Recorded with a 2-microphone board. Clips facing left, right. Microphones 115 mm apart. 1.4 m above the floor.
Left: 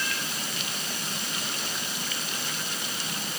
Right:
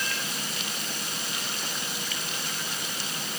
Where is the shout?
I don't hear a shout.